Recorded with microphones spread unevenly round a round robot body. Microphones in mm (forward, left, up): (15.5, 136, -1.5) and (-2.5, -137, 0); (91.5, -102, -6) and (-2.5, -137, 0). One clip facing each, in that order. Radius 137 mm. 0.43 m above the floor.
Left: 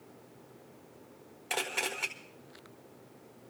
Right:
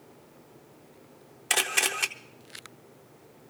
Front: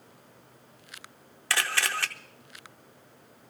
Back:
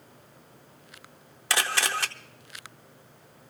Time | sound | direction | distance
1.5 | a camera shutter | 100° right | 0.7 m